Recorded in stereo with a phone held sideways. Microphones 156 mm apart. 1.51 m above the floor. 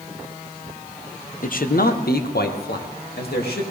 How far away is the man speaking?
About 0.9 m.